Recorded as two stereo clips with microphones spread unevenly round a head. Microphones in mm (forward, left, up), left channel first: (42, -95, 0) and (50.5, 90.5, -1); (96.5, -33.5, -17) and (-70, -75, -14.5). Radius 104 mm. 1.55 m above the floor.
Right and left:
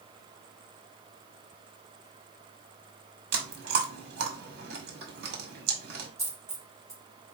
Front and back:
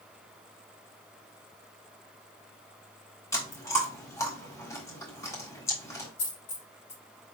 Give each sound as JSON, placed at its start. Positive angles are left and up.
{"t": 3.3, "sound": "chewing", "azimuth_deg": 85, "distance_m": 1.5}
{"t": 6.2, "sound": "a dropped coin", "azimuth_deg": 10, "distance_m": 3.5}